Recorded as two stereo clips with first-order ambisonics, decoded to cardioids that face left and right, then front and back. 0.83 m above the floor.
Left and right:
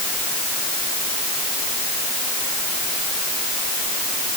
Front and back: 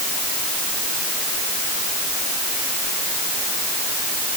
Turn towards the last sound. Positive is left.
No sound to turn to.